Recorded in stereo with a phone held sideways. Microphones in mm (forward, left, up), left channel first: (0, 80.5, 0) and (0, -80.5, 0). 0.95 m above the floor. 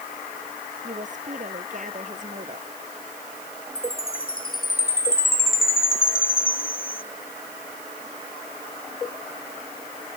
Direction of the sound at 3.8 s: 65° left (ahead or behind).